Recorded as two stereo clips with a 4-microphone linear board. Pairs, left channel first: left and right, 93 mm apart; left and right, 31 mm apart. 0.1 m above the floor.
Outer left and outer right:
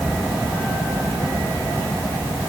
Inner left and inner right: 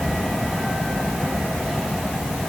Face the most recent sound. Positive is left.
No sound to turn to.